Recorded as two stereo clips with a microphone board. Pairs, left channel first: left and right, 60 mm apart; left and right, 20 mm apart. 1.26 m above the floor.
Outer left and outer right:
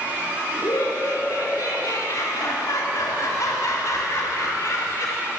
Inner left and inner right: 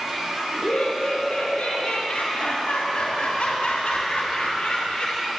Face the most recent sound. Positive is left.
turn(degrees=60)  # may be behind; listen again after turning